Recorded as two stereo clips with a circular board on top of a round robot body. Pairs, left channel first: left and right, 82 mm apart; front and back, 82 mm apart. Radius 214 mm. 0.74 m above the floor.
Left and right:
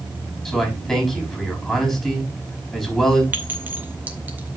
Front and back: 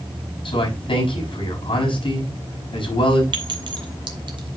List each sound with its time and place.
0.5 s a man speaking: 10° left, 6 m
3.3 s a clink: 160° right, 2 m